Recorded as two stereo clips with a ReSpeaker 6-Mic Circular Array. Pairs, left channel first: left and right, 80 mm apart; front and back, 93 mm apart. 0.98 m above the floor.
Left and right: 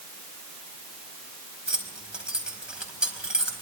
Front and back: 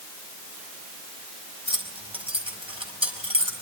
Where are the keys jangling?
170° right, 4.5 m.